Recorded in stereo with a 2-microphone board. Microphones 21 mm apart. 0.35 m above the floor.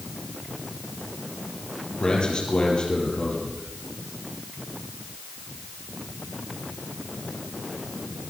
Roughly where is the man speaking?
Left.